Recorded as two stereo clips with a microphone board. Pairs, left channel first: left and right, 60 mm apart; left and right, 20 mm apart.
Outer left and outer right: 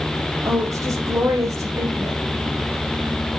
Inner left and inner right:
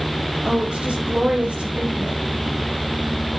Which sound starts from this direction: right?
A woman speaking, at 0.5 s.